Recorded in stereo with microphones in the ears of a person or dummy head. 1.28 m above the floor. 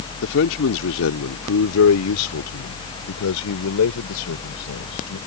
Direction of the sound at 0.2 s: 65° left (ahead or behind).